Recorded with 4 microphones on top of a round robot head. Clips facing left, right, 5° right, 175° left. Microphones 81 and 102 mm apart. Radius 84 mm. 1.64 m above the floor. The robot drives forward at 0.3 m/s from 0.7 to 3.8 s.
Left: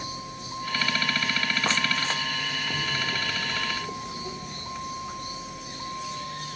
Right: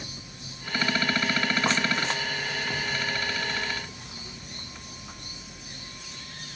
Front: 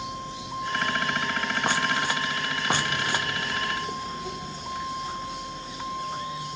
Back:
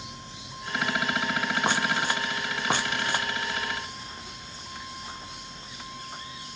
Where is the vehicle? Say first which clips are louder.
Left 7 dB, front 9 dB; 35° left.